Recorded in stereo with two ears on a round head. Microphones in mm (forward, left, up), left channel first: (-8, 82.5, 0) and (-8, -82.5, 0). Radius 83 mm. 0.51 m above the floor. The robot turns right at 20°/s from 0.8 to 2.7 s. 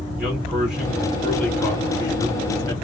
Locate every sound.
0.2 s a man speaking: 5° right, 1.7 m; by 2.7 s 35° left, 1.7 m